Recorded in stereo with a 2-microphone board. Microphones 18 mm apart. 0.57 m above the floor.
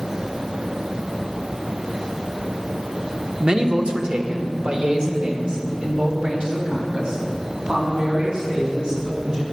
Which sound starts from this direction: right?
A man speaking, at 3.4 s.